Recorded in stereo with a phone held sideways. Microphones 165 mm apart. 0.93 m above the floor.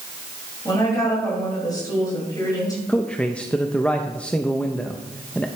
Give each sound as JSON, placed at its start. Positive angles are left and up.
{"t": 0.7, "sound": "a woman speaking", "side_deg": 25, "distance_m": 5.5}
{"t": 2.9, "sound": "a man speaking", "side_deg": 5, "distance_m": 0.6}